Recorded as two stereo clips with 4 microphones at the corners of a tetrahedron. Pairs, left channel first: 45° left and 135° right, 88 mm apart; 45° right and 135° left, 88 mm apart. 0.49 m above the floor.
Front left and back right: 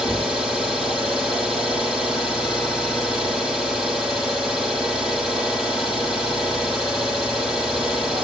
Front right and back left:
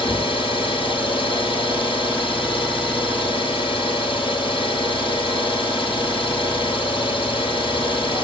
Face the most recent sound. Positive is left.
turn(degrees=-50)